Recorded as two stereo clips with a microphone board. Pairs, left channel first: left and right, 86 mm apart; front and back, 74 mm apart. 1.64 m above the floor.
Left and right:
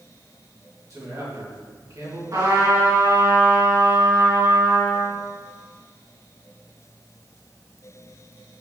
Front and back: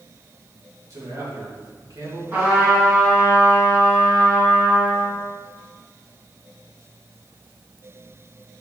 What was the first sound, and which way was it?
A man speaking, 140° right.